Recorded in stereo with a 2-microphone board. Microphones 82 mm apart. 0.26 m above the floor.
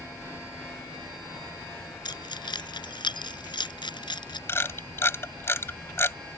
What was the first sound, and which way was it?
Keys jangling, 65° left (ahead or behind).